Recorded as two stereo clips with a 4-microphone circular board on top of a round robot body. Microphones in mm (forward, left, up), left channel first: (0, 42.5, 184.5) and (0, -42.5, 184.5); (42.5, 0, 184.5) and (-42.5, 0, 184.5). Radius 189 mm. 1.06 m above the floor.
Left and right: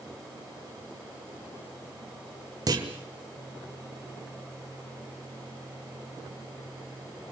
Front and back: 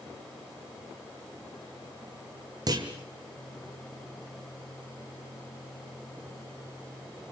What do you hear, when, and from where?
2.7 s a clunk: 135° right, 1.3 m